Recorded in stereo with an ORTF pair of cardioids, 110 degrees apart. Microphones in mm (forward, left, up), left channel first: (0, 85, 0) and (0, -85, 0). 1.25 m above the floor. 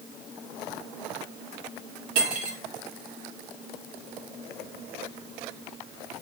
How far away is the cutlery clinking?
About 1.2 m.